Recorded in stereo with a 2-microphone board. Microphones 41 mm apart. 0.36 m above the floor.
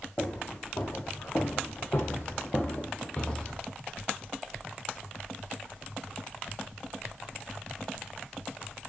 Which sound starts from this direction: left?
Footsteps, at 0.2 s.